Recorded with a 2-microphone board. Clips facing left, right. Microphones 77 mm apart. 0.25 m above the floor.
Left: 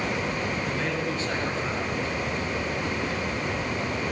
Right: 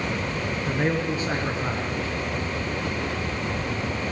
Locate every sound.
0.7 s a man speaking: 15° right (ahead or behind), 4 m